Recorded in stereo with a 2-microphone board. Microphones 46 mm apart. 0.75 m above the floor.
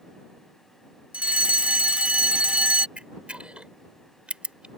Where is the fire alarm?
25° right (ahead or behind).